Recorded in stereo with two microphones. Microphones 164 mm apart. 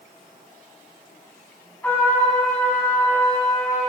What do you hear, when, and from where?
1.8 s a trumpet: 10° left (ahead or behind), 5.5 m